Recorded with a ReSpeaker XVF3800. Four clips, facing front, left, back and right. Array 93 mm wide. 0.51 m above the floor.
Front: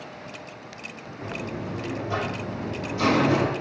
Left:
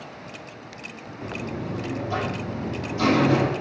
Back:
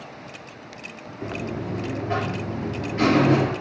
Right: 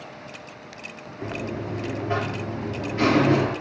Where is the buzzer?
130° right, 4.5 m.